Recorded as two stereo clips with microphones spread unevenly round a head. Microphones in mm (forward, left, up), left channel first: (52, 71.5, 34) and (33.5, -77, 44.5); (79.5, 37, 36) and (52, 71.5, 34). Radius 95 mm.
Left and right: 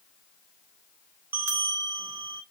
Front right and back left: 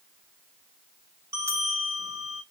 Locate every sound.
1.3 s a bell: 175° right, 0.5 m